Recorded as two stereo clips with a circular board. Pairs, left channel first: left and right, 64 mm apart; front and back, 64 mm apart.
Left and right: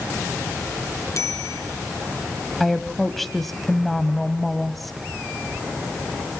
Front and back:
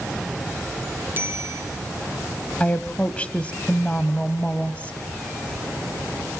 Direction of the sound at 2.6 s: 5° left.